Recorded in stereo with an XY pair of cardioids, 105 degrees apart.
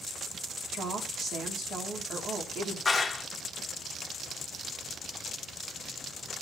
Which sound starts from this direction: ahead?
A clap, at 2.9 s.